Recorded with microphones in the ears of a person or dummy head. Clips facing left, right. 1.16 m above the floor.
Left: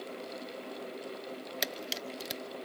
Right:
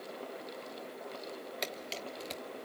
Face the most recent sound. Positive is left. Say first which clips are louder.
# left 1 dB
turn(degrees=10)  # may be behind; listen again after turning